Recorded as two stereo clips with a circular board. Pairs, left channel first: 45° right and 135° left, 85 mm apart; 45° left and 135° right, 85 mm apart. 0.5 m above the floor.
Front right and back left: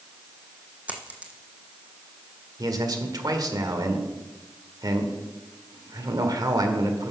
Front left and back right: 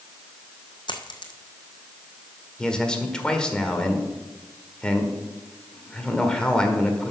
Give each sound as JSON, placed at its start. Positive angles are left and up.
{"t": 0.9, "sound": "a dropped coin", "azimuth_deg": 65, "distance_m": 1.4}
{"t": 2.6, "sound": "a man speaking", "azimuth_deg": 120, "distance_m": 1.7}